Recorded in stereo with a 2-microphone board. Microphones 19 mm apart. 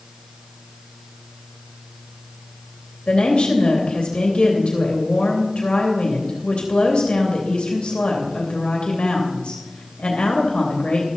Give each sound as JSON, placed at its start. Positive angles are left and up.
{"t": 3.1, "sound": "a woman speaking", "side_deg": 75, "distance_m": 3.0}